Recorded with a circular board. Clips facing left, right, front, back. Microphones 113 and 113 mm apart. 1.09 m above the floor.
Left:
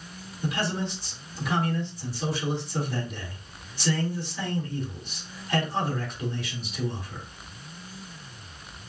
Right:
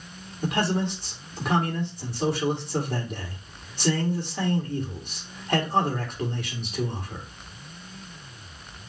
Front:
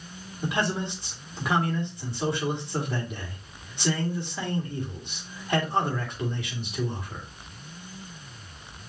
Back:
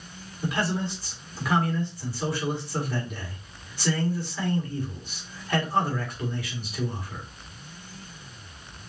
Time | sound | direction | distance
0.4 | a man speaking | 65° right | 2 m